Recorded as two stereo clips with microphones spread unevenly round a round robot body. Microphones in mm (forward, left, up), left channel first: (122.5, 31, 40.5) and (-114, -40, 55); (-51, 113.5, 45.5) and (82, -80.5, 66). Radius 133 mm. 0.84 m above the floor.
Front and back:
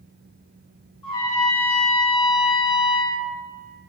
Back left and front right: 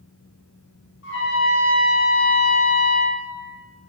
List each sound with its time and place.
1.0 s a trumpet: 90° left, 0.6 m